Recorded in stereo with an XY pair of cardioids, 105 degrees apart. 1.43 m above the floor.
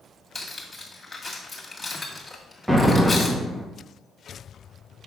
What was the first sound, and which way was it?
Cutlery clinking, 10° left.